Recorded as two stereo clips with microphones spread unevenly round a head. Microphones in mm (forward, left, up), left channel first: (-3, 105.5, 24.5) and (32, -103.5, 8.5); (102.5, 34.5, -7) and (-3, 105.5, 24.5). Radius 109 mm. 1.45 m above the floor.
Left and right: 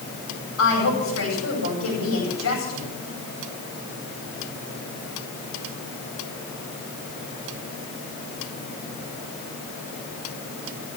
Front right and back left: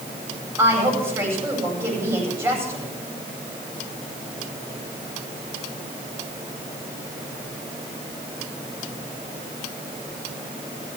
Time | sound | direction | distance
0.6 | a woman speaking | 80° left | 8.5 m